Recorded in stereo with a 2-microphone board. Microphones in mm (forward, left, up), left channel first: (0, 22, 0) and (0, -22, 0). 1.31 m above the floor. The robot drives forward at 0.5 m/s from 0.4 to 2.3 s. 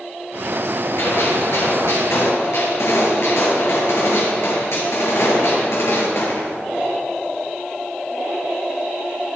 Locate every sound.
1.0 s a gunshot: 75° left (ahead or behind), 6.5 m; by 6.5 s 70° left (ahead or behind), 6.5 m